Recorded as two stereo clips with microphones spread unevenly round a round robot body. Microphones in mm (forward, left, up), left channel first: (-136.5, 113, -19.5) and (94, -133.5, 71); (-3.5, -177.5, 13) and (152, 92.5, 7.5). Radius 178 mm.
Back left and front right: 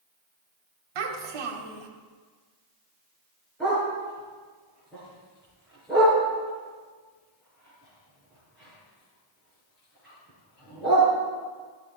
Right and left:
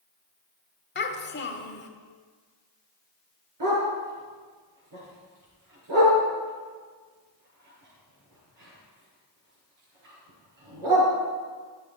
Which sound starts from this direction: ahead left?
A dog barking, at 3.6 s.